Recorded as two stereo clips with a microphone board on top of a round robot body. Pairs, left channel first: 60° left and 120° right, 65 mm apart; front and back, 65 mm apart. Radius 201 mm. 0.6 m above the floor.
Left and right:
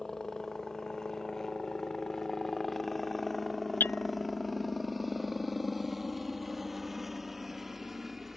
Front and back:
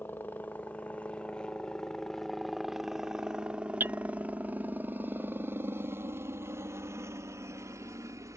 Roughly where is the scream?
I don't hear a scream.